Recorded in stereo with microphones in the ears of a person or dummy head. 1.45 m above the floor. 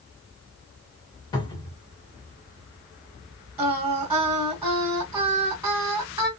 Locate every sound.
1.3 s a cupboard door: 20° left (ahead or behind), 1.2 m
3.6 s singing: 15° right (ahead or behind), 1.7 m